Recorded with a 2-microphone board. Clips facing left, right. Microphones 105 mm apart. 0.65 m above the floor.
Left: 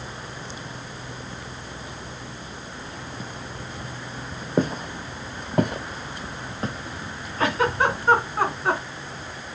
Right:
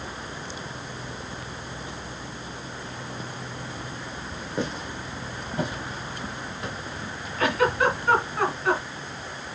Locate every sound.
4.6 s footsteps: 45° left (ahead or behind), 1.4 m; by 6.8 s 35° left (ahead or behind), 1.4 m
7.4 s a giggle: 30° left (ahead or behind), 2.5 m